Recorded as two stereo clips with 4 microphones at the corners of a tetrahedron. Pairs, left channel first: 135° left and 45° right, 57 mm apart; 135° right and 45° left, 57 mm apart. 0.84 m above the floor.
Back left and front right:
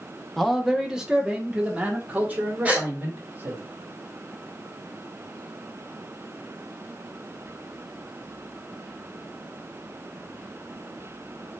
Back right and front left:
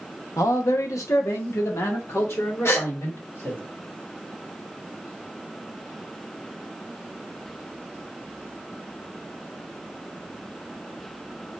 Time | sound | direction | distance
0.4 | a man speaking | 135° right | 0.8 m
2.6 | a gasp | 100° right | 1.2 m